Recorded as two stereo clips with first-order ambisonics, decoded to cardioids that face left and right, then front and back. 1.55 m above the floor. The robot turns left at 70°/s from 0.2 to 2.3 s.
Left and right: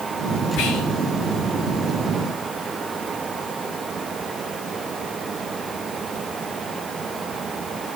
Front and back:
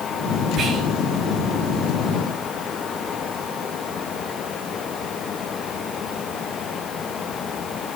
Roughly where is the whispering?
Behind left.